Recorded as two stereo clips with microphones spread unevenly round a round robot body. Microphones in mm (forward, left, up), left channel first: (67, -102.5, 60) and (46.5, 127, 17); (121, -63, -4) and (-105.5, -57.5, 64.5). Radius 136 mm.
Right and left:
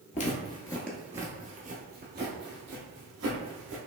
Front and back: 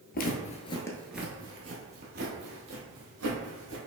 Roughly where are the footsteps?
Ahead right.